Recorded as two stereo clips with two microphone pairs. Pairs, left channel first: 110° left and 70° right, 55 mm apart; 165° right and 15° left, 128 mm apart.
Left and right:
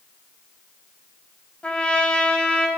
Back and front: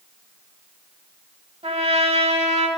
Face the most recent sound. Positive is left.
turn(degrees=45)